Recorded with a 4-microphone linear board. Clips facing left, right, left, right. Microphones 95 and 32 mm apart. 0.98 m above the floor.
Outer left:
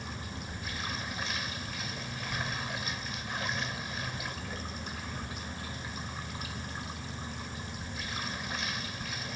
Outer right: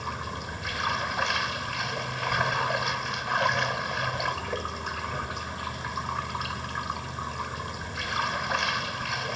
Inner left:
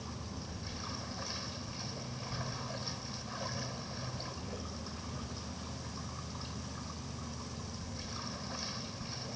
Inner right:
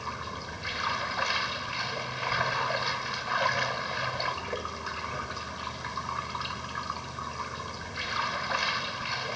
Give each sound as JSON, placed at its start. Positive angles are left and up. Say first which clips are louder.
{"t": 0.0, "sound": "running water", "louder": "outer right 8 dB, inner right 9 dB", "side_deg": -75}